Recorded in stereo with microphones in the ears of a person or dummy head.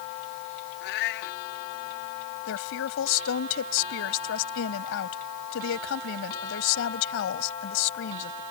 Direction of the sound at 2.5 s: 75° left (ahead or behind).